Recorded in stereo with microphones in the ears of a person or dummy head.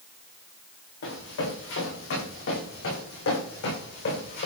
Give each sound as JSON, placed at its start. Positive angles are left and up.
{"t": 1.0, "sound": "running footsteps", "side_deg": 65, "distance_m": 8.0}